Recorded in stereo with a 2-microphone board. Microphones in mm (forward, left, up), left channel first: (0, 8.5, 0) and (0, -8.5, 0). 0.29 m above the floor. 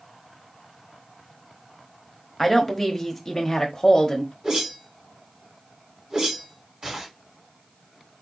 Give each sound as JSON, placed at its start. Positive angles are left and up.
{"t": 2.4, "sound": "a woman speaking", "side_deg": 0, "distance_m": 1.3}
{"t": 4.4, "sound": "a whoosh", "side_deg": -35, "distance_m": 3.0}